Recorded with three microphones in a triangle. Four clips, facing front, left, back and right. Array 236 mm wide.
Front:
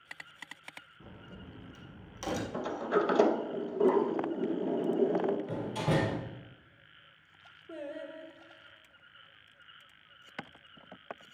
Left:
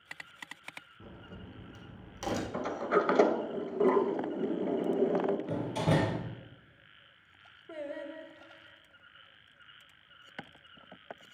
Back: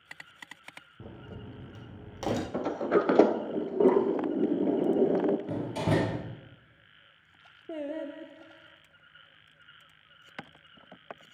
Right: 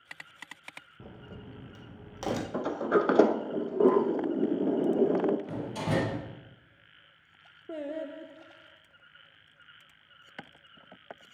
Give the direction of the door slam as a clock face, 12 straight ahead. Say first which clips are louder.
Left 1 dB, back 3 dB; 6 o'clock.